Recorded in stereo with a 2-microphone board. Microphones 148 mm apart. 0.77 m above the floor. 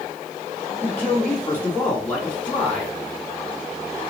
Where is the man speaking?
10° left (ahead or behind), 2 m.